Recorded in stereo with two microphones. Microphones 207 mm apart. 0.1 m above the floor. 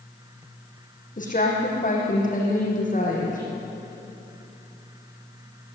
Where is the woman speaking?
40° left (ahead or behind), 6 m.